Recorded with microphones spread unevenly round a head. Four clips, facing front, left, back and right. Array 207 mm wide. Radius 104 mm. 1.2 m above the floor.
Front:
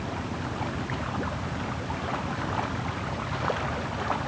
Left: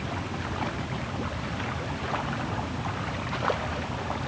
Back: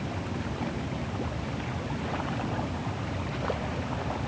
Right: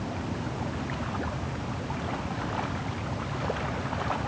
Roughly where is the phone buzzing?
I don't hear a phone buzzing.